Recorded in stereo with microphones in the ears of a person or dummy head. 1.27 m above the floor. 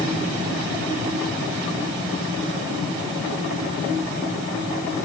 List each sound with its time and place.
Only background noise.